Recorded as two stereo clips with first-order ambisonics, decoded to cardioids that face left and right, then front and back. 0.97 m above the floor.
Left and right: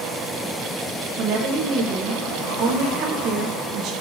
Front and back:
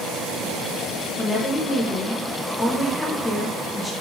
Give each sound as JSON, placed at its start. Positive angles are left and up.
{"t": 1.2, "sound": "a woman speaking", "azimuth_deg": -75, "distance_m": 0.6}